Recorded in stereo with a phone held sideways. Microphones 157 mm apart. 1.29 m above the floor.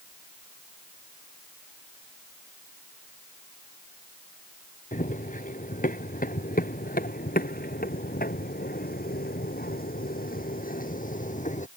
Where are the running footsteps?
55° left (ahead or behind); by 11.7 s 50° left (ahead or behind).